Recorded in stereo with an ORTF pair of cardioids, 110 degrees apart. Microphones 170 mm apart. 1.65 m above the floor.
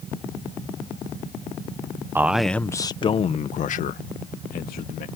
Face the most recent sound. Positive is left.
turn(degrees=70)